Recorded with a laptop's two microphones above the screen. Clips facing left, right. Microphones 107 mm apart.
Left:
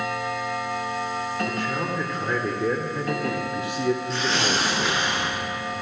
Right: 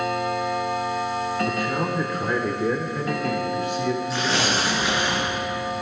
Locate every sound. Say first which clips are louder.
1.5 s a man speaking: right 3 dB; 15° right (ahead or behind), 3 m; by 5.0 s 35° left (ahead or behind), 2.5 m
4.1 s tearing paper: right 1 dB; 5° right (ahead or behind), 8 m